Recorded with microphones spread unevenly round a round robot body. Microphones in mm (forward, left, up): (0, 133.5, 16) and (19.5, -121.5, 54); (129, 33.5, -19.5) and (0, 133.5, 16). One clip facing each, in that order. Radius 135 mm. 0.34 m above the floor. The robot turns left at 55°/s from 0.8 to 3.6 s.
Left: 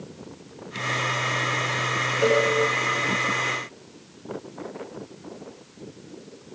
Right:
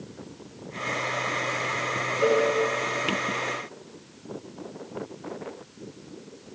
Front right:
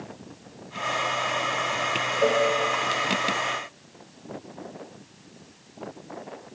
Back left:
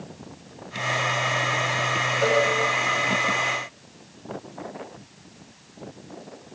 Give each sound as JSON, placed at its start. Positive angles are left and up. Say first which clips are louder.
{"t": 2.2, "sound": "a cowbell", "louder": "left 1 dB, even", "azimuth_deg": 30, "distance_m": 4.5}